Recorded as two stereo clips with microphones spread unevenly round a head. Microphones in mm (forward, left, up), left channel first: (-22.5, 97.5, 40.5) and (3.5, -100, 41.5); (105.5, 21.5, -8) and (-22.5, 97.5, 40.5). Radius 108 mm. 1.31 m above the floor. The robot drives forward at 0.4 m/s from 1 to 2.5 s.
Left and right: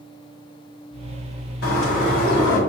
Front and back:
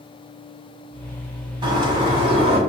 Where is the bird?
120° left, 1.7 m; by 2.6 s 130° left, 1.8 m.